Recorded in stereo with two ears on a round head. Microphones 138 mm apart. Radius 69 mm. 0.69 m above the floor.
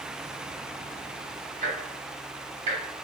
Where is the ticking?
45° right (ahead or behind), 1.1 m.